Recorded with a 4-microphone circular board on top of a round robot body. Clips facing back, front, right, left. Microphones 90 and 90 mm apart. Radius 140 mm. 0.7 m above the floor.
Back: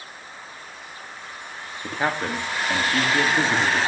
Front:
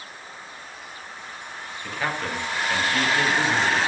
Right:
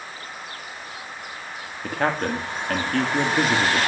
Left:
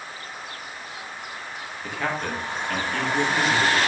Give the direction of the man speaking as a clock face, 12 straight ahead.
4 o'clock.